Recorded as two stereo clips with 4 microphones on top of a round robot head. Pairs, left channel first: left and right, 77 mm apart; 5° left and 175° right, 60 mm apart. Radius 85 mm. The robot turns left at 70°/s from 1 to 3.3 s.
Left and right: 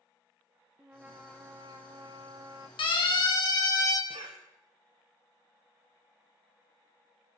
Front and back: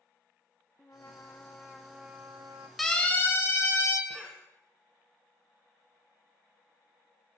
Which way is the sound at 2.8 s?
95° left.